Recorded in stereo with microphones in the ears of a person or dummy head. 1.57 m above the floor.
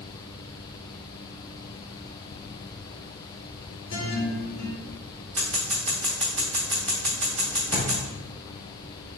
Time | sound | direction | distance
3.9 | a guitar | 80° left | 1.2 m
5.4 | scissors | 5° left (ahead or behind) | 1.1 m
7.7 | a drawer | 25° left (ahead or behind) | 1.3 m